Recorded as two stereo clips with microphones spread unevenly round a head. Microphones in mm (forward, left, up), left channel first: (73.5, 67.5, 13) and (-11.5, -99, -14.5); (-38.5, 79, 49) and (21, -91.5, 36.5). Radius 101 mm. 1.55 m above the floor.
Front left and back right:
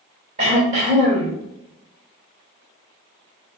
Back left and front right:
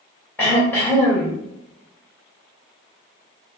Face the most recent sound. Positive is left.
turn(degrees=-175)